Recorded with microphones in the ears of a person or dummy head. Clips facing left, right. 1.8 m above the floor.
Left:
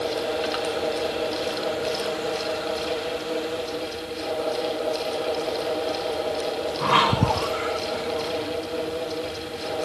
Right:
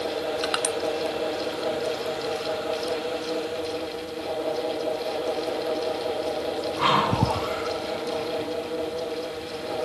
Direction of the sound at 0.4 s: 65° right (ahead or behind).